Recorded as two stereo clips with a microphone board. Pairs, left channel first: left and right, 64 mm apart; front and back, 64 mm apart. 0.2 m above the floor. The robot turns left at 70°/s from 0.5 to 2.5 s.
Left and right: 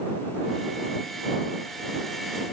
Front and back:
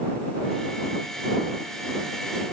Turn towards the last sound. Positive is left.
No sound to turn to.